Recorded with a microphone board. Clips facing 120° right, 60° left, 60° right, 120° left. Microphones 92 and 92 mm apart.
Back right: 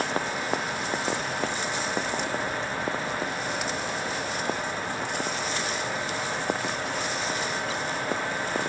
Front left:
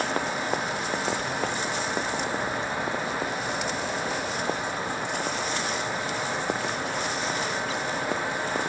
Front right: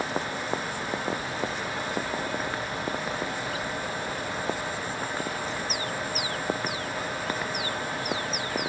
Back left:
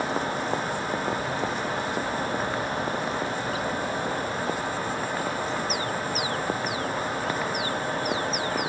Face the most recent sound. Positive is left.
No sound to turn to.